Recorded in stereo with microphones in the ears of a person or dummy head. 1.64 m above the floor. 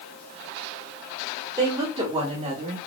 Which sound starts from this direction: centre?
A woman speaking, at 1.6 s.